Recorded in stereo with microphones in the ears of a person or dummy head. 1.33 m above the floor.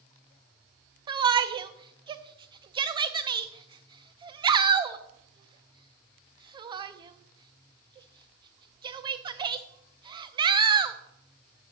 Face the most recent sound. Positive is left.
turn(degrees=-25)  # may be behind; listen again after turning